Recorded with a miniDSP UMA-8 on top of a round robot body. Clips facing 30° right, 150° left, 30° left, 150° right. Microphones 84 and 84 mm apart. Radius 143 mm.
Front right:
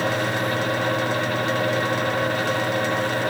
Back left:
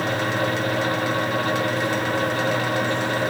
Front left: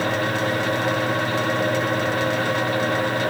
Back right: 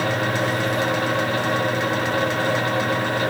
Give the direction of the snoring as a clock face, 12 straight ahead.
No snoring in this recording.